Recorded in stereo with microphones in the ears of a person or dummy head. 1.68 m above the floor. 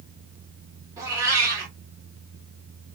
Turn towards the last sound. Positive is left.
turn(degrees=-15)  # may be behind; listen again after turning